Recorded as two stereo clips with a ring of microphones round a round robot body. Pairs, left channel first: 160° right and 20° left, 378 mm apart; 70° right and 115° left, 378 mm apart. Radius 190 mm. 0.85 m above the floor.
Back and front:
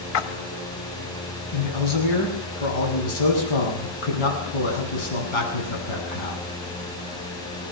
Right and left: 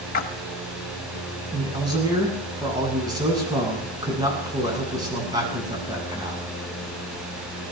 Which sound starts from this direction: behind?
A man speaking, at 1.5 s.